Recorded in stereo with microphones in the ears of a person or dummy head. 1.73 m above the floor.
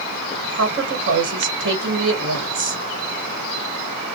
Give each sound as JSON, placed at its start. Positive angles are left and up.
{"t": 0.5, "sound": "a woman speaking", "side_deg": -55, "distance_m": 1.2}